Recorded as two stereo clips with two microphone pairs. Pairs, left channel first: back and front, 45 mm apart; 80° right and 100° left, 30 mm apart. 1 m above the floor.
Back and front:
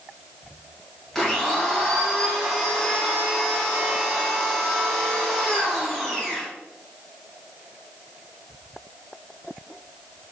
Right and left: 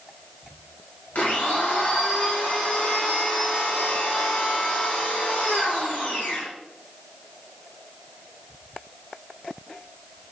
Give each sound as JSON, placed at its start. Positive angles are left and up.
{"t": 1.1, "sound": "a blender", "azimuth_deg": -95, "distance_m": 0.7}